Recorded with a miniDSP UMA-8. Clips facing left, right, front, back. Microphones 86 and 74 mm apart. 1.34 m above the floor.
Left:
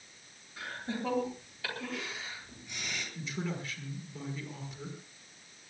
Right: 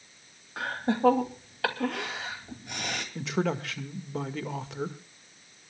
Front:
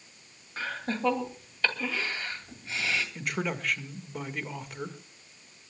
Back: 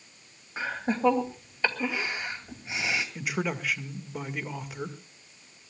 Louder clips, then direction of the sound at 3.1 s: Right 10 dB, back 1 dB; 95° right.